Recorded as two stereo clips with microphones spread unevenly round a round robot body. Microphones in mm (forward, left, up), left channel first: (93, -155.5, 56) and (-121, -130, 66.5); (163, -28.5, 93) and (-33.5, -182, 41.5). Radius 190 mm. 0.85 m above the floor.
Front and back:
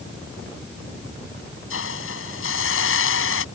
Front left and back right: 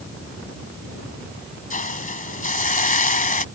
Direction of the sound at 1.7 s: 20° right.